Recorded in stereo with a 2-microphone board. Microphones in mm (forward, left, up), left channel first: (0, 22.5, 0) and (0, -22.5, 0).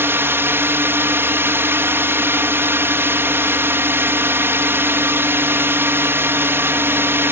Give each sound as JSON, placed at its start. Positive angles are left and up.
{"t": 0.0, "sound": "a drone", "side_deg": -55}